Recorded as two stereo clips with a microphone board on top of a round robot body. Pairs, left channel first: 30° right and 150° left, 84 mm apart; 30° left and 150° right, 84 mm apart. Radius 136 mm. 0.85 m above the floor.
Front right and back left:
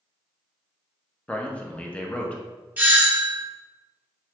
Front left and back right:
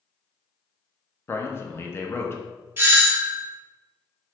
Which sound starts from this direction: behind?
A doorbell, at 2.8 s.